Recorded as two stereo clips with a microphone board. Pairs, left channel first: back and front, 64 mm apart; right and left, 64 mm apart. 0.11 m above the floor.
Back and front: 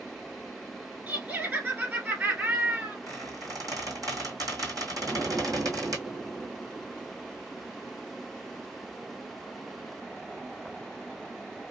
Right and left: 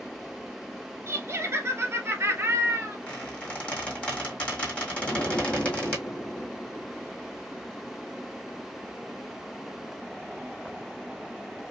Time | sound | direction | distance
1.1 | laughter | 60° left | 1.5 m
3.1 | a squeak | 20° right | 2.0 m
5.0 | an explosion | 75° right | 1.4 m